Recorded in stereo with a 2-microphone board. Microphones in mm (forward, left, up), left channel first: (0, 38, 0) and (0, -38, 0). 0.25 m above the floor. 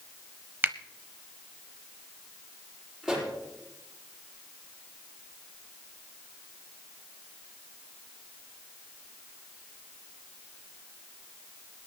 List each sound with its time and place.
0.6 s a finger snap: 25° right (ahead or behind), 0.8 m
3.0 s a pop: centre (ahead or behind), 6.5 m